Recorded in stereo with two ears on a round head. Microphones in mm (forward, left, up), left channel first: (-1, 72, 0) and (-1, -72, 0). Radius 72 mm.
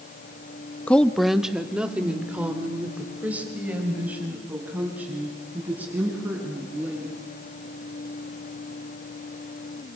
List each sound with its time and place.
0.9 s a woman speaking: 10° left (ahead or behind), 0.6 m; by 7.1 s 10° right (ahead or behind), 8.5 m